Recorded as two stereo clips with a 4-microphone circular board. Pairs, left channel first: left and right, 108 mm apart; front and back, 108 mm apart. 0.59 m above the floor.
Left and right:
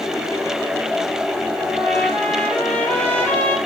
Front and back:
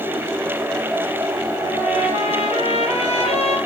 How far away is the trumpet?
About 3.5 m.